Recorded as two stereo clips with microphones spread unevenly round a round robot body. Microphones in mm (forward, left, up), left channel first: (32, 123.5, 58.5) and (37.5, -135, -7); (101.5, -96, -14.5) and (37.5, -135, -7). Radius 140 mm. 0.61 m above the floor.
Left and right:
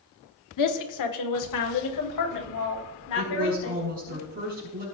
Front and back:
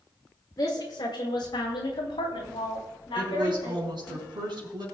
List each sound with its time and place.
0.6 s a woman speaking: 85° left, 1.4 m; by 4.2 s 70° left, 5 m
3.1 s a woman speaking: 145° right, 5 m